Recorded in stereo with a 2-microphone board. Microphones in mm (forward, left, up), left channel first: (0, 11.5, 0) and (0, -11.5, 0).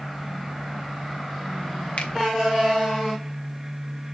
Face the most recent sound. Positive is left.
turn(degrees=60)  # may be behind; listen again after turning